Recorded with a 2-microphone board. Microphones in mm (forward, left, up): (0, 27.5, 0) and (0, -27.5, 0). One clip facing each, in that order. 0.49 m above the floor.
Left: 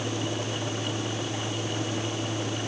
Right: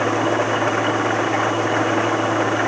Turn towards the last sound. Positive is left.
turn(degrees=-75)  # may be behind; listen again after turning